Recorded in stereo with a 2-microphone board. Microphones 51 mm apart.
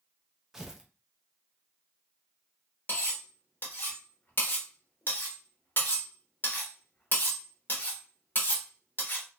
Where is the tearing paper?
10° right (ahead or behind), 0.5 m.